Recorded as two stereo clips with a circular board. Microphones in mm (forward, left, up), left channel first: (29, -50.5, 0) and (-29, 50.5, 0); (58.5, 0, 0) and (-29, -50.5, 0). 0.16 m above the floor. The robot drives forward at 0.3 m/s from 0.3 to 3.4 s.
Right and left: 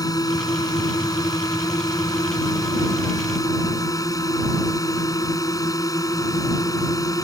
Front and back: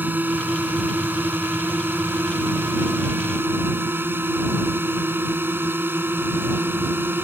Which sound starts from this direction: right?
A drone, at 0.0 s.